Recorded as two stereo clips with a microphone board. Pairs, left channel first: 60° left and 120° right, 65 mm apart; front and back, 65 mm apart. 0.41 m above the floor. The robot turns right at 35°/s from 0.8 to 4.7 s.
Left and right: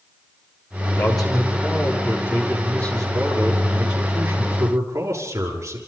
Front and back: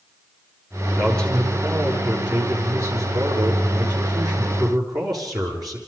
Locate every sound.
1.0 s a man speaking: 65° left, 7.5 m; by 5.8 s 165° right, 7.5 m